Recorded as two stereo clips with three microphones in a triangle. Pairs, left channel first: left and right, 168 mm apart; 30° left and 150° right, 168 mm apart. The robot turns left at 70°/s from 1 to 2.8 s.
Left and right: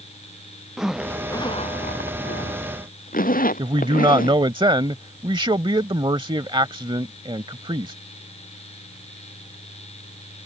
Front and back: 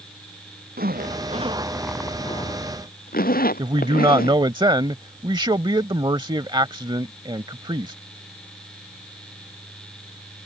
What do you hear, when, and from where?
0.8 s a zipper: 175° right; by 4.4 s 60° left
3.6 s a man speaking: 115° right